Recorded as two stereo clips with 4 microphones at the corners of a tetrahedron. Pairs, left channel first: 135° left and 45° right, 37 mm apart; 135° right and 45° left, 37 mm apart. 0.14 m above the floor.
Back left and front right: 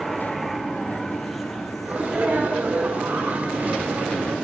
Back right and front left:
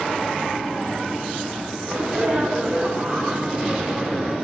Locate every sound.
1.9 s a sneeze: 5° left, 6.5 m